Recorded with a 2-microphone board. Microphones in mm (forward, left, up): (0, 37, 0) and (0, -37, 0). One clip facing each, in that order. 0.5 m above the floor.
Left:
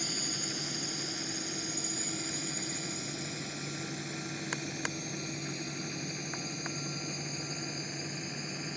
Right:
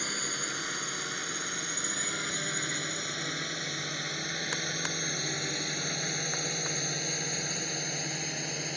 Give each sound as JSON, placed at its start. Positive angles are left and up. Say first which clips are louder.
{"t": 0.0, "sound": "a drone", "louder": "right 3 dB", "side_deg": -60}